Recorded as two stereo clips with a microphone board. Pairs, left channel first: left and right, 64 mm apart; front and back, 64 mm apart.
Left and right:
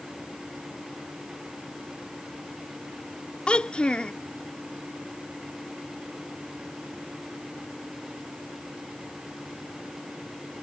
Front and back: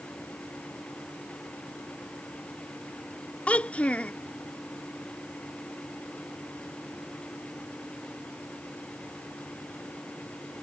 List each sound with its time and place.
3.5 s a child speaking: 40° left